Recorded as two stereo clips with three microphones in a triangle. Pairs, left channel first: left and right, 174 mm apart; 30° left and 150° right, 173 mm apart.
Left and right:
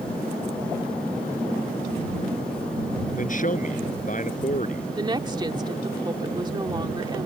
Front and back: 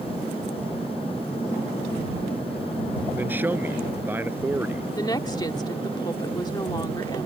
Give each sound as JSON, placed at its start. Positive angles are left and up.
{"t": 3.1, "sound": "a man speaking", "azimuth_deg": 130}
{"t": 5.0, "sound": "a woman speaking", "azimuth_deg": -30}